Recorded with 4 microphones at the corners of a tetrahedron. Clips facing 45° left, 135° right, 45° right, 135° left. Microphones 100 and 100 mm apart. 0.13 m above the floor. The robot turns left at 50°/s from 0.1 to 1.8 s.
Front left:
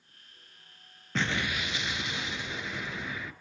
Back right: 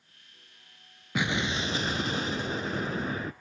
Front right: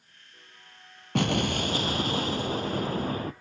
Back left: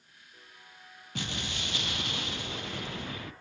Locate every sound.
1.1 s an explosion: 55° right, 0.8 m; by 3.3 s 90° right, 0.8 m